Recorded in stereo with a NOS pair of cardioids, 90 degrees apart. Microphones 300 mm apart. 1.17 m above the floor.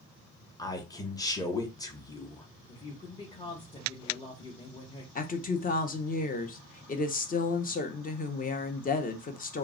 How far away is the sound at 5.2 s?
About 0.7 m.